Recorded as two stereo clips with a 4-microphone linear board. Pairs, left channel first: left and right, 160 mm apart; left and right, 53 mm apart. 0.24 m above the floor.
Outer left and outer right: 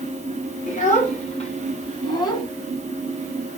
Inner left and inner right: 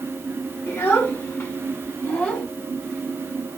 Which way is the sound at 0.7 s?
55° left (ahead or behind).